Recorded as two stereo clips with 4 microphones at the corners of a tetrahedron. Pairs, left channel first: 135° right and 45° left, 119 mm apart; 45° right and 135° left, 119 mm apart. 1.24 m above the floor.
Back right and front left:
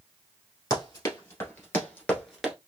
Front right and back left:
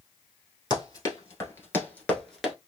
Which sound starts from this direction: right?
Running footsteps, at 0.7 s.